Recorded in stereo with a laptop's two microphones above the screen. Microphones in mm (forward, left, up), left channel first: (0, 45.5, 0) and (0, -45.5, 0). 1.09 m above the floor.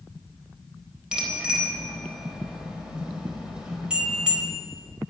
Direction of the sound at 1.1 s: 10° right (ahead or behind).